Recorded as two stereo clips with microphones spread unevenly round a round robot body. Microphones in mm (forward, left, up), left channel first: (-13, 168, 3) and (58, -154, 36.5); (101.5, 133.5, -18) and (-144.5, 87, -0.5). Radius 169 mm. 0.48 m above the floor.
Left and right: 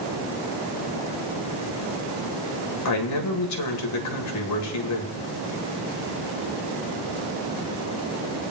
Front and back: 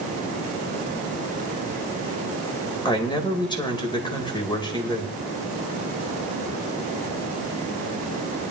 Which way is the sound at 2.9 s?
80° left.